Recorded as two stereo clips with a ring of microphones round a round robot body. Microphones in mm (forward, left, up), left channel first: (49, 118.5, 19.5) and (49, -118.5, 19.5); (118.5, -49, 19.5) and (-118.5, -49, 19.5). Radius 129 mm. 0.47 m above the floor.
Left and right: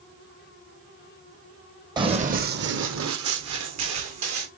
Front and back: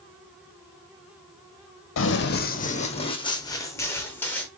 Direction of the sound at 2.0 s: 20° right.